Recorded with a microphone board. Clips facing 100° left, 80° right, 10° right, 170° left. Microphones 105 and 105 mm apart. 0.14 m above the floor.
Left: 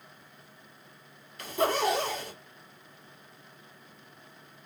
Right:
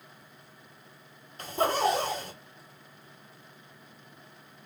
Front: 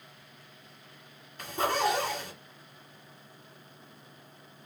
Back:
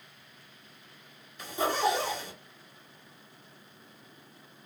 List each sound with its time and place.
1.4 s a zipper: 30° right, 2.5 m